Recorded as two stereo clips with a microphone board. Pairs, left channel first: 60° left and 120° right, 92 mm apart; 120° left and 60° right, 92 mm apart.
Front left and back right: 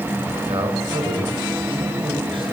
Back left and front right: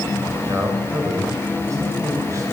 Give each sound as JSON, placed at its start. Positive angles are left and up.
{"t": 0.5, "sound": "a man speaking", "azimuth_deg": -110, "distance_m": 8.0}